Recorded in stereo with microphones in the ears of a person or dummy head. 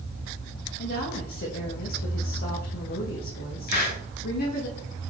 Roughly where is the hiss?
Left.